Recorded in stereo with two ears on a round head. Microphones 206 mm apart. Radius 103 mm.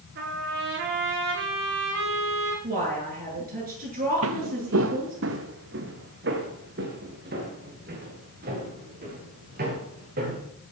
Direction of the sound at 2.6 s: 40° right (ahead or behind).